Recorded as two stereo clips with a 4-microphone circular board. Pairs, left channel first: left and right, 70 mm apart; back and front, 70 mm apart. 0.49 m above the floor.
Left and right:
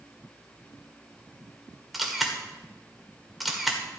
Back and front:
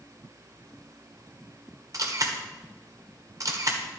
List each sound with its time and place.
1.9 s a camera shutter: straight ahead, 1.6 m